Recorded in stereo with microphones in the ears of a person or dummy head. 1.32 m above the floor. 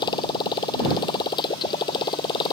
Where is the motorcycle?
25° left (ahead or behind).